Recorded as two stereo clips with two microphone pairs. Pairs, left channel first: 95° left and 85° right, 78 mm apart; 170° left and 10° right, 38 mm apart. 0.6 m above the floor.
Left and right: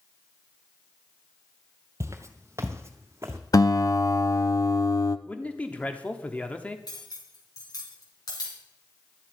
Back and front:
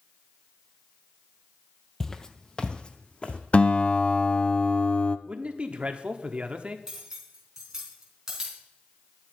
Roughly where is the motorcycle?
I don't hear a motorcycle.